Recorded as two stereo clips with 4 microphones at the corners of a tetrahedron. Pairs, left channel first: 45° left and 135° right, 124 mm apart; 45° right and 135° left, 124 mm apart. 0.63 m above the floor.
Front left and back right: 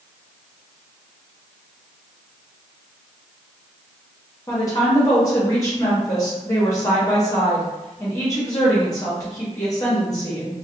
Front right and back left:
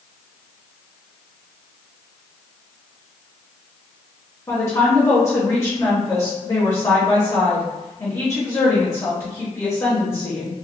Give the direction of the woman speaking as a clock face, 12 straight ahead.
12 o'clock.